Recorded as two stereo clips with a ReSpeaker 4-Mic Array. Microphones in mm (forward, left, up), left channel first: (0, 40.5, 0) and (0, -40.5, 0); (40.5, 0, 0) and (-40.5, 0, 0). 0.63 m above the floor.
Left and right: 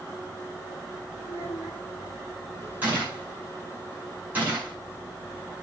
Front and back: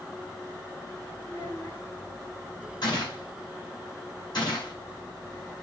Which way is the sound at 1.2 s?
40° right.